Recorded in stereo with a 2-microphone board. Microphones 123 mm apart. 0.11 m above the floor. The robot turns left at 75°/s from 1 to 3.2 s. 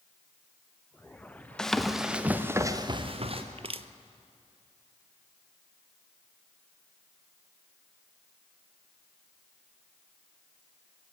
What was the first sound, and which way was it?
Running footsteps, 5° left (ahead or behind).